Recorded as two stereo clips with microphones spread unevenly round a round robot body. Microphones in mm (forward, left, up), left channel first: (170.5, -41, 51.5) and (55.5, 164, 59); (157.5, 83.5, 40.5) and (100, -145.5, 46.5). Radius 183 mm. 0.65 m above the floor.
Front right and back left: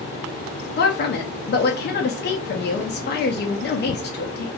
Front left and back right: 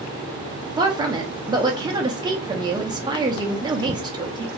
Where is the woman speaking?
35° right, 0.7 m.